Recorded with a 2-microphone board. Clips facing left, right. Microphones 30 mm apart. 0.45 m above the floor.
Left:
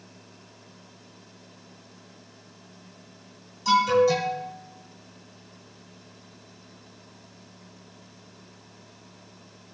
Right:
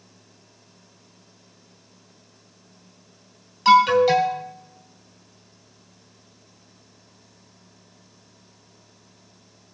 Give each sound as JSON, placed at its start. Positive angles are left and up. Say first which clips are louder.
{"t": 3.6, "sound": "an alarm", "louder": "right 5 dB", "side_deg": -65, "distance_m": 3.5}